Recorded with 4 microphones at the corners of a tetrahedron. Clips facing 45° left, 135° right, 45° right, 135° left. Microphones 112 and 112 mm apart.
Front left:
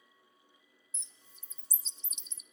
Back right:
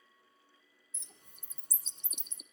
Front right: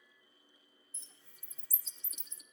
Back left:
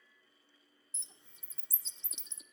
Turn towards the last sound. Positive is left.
turn(degrees=-160)